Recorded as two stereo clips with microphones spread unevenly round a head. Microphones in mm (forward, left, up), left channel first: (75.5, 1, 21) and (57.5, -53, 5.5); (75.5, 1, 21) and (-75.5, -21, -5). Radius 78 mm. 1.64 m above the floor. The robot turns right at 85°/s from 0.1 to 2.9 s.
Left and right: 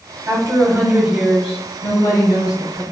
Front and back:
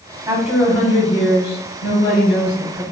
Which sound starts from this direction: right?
A woman speaking, at 0.3 s.